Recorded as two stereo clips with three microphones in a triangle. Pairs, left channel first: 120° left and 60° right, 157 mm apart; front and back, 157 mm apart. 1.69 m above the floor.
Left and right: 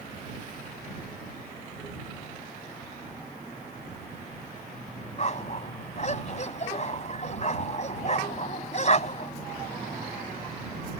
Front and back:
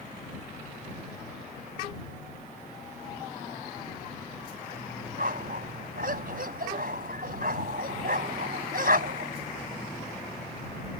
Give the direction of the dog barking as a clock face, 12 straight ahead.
7 o'clock.